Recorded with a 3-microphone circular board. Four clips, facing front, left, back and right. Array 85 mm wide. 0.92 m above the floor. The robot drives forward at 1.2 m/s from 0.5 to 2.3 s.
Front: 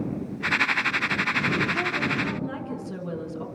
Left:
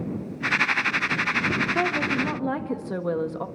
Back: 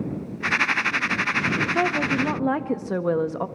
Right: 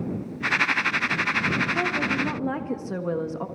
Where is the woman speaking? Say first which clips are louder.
Left 1 dB, back 5 dB; 155° left, 0.8 m; by 3.5 s 170° left, 1.3 m.